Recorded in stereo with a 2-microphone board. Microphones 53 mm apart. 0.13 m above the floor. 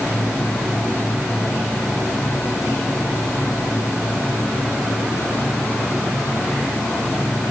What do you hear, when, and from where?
Only background noise.